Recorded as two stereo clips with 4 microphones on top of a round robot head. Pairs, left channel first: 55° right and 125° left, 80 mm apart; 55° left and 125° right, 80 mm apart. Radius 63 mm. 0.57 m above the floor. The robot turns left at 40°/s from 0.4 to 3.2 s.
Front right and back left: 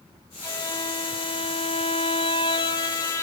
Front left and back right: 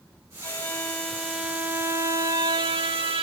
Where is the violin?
Straight ahead, 2 m; by 3.2 s 115° right, 2 m.